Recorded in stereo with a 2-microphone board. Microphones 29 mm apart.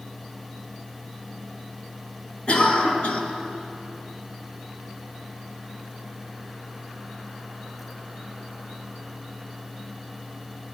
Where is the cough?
40° left (ahead or behind), 2 m.